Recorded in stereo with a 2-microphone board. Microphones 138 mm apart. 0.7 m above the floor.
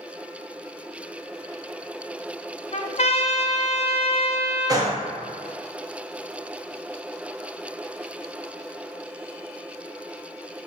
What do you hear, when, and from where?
2.7 s a trumpet: 50° left (ahead or behind), 0.5 m
4.7 s a gunshot: 25° right (ahead or behind), 0.8 m